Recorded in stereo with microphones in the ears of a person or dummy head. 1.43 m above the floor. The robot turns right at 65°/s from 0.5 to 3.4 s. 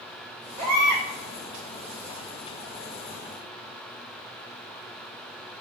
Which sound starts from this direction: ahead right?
A baby crying, at 0.6 s.